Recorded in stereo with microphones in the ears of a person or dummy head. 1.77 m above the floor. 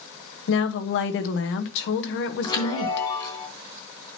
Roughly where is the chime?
Left.